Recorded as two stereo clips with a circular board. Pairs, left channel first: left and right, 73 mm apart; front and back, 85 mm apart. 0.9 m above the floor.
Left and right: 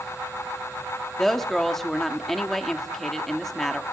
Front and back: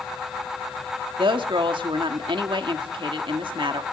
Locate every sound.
1.2 s a woman speaking: 175° left, 1.6 m